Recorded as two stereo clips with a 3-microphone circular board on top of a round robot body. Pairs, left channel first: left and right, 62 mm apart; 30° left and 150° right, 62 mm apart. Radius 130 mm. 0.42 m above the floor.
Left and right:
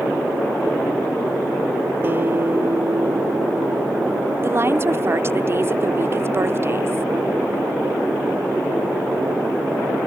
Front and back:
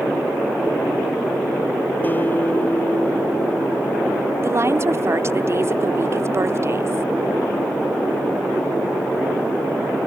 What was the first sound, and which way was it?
A guitar, 30° right.